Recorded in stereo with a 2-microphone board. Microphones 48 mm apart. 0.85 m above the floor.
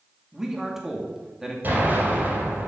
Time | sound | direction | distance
0.3 | a man speaking | 10° right (ahead or behind) | 1.9 m
1.6 | an explosion | 40° right (ahead or behind) | 4.5 m